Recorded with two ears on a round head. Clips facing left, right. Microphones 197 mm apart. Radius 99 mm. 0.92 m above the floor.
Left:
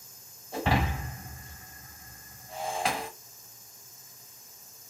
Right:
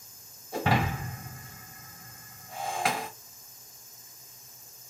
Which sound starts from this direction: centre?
Breaking glass, at 0.5 s.